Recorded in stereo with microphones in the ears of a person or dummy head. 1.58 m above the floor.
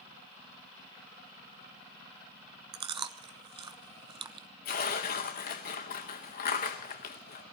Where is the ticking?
No ticking in this recording.